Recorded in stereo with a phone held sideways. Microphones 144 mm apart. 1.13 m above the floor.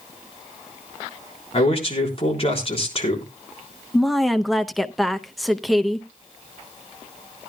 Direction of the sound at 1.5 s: 40° left (ahead or behind).